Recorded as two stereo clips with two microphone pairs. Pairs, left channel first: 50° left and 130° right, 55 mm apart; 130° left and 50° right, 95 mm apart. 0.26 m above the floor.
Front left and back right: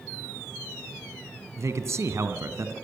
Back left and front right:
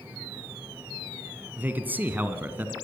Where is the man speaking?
120° right, 2.5 m.